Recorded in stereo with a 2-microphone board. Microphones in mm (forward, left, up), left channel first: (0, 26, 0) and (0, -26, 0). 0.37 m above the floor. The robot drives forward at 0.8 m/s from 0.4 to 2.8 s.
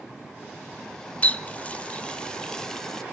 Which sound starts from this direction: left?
A running tap, at 1.2 s.